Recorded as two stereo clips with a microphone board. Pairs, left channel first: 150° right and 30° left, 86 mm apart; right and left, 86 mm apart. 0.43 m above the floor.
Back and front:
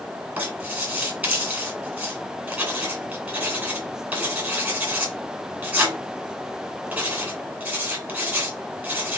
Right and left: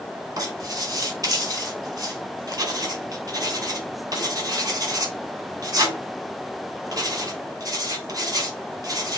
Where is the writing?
90° left, 1.8 m.